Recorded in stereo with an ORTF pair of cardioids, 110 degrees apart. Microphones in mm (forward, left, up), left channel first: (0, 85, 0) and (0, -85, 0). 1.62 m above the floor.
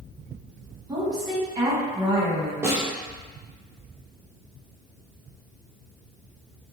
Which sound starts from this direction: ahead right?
A woman speaking, at 0.9 s.